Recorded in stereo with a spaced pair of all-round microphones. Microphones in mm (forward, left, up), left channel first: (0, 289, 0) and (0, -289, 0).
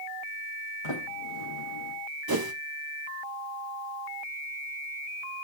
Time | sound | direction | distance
0.8 | a sliding door | 75° left (ahead or behind) | 5 m
2.3 | a whoosh | 40° right (ahead or behind) | 1.2 m